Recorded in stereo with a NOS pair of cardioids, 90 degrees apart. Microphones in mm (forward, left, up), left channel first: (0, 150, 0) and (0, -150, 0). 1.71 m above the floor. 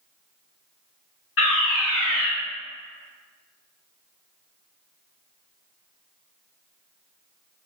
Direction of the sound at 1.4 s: 50° left.